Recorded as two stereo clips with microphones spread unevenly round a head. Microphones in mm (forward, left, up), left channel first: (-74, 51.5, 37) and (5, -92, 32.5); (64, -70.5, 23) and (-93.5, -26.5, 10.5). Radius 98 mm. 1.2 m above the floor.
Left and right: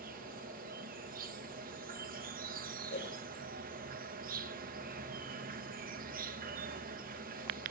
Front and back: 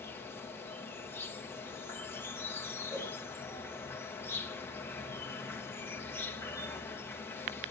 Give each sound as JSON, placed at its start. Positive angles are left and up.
{"t": 0.0, "sound": "an insect", "azimuth_deg": -95, "distance_m": 1.6}
{"t": 2.9, "sound": "a whoosh", "azimuth_deg": 85, "distance_m": 6.5}